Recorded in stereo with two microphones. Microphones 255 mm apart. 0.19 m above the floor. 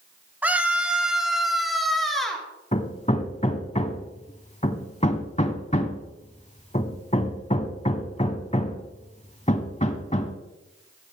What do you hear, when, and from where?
0.4 s a scream: 5° right (ahead or behind), 1.4 m; by 2.5 s centre (ahead or behind), 3 m
2.7 s hammering: 25° left (ahead or behind), 0.8 m